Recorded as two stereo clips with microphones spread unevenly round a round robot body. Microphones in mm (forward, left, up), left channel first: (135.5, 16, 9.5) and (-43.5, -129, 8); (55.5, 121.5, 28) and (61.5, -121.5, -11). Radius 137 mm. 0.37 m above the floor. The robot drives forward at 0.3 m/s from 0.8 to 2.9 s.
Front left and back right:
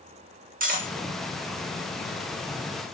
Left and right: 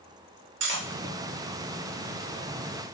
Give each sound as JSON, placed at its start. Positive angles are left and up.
{"t": 0.6, "sound": "cutlery clinking", "azimuth_deg": -95, "distance_m": 0.8}